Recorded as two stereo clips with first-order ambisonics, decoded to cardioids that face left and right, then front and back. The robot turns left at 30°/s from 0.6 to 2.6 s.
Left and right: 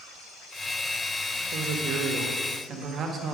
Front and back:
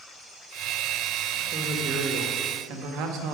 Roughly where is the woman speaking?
Behind right.